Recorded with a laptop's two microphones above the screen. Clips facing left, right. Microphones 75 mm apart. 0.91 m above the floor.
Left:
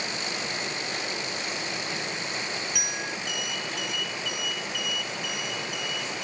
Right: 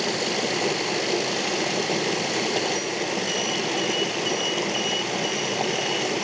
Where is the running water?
65° right (ahead or behind).